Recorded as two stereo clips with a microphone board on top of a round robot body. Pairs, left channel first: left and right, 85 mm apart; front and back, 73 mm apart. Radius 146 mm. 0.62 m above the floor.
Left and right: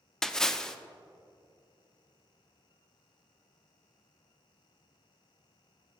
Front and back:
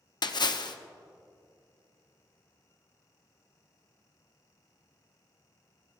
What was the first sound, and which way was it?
A splash, 5° left.